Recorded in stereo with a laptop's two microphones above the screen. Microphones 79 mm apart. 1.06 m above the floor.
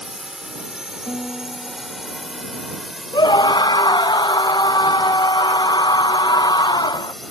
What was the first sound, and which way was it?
A drone, 10° right (ahead or behind).